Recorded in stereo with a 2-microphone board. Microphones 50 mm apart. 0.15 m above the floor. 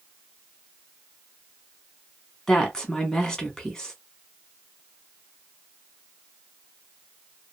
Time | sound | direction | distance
2.5 | a woman speaking | 15° left (ahead or behind) | 1.0 m